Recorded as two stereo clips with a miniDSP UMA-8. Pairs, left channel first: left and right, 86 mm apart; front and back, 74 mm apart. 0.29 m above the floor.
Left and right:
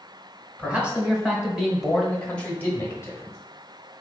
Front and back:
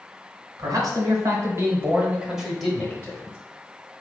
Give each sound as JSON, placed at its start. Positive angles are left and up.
{"t": 0.6, "sound": "a man speaking", "azimuth_deg": -165, "distance_m": 1.7}